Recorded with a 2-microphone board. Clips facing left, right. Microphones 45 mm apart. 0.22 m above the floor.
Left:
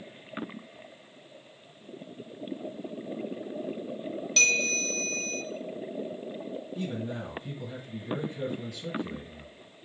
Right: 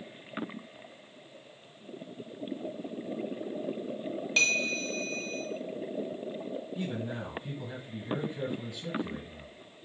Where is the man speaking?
20° right (ahead or behind), 2.0 m.